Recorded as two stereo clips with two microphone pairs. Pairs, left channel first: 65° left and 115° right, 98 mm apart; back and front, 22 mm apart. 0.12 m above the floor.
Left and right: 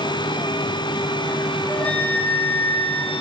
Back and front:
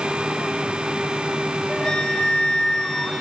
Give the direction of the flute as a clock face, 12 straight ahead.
8 o'clock.